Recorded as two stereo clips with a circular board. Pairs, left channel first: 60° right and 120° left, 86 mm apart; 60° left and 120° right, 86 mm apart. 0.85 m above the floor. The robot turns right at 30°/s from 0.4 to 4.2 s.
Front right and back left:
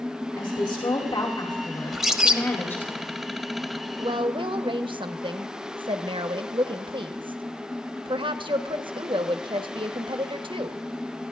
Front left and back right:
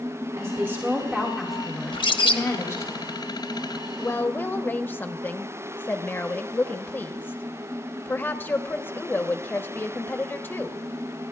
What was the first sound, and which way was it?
A woman speaking, 65° right.